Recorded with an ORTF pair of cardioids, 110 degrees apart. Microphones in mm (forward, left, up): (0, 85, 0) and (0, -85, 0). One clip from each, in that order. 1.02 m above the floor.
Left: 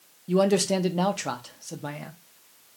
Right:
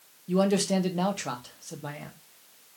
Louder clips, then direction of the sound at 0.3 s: Left 3 dB; 15° left.